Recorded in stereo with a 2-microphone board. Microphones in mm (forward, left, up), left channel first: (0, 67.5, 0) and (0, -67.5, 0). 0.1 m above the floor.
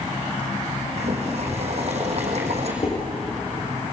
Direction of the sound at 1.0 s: 50° right (ahead or behind).